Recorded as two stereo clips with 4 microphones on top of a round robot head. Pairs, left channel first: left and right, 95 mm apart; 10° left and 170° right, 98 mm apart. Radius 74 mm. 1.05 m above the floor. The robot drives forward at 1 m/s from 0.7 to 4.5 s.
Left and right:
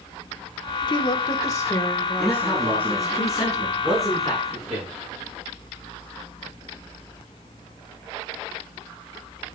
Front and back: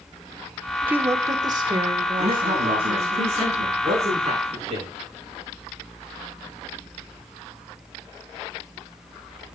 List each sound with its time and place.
0.9 s a woman speaking: 120° left, 1.1 m; by 3.2 s 165° left, 3 m
2.2 s a man speaking: straight behind, 8.5 m